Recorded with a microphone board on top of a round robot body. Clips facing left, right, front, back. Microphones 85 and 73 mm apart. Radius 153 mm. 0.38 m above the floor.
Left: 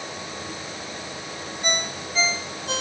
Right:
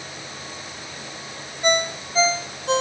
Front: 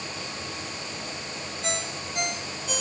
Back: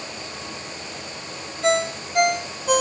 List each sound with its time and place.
1.6 s a ringtone: 145° right